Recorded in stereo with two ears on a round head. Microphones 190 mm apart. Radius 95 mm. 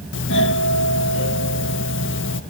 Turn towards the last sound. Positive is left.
turn(degrees=60)  # may be behind; listen again after turning